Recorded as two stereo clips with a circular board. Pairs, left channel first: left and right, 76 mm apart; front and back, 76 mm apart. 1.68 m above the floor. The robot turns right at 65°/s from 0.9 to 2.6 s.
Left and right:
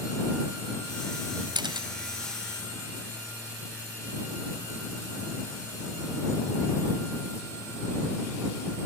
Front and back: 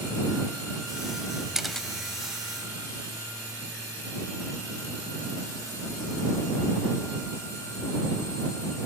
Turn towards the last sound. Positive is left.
turn(degrees=-30)